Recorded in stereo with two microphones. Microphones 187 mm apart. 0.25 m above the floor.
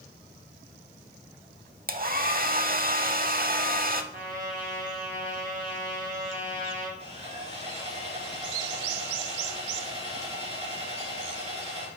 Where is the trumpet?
45° right (ahead or behind), 3 m.